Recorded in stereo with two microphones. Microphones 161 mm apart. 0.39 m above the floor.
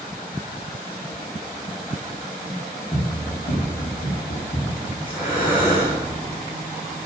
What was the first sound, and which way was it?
Running footsteps, 40° left (ahead or behind).